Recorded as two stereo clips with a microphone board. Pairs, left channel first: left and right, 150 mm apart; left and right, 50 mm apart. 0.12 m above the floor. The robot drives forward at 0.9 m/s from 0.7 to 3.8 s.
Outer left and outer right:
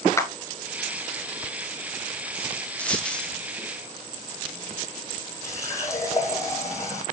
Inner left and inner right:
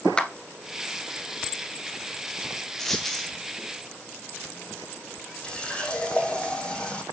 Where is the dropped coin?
10° left (ahead or behind), 1.5 m; by 3.3 s 5° left (ahead or behind), 2.0 m.